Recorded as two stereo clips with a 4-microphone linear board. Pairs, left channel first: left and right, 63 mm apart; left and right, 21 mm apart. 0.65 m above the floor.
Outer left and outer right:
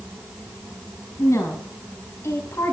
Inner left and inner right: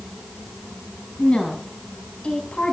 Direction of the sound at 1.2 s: 50° left (ahead or behind).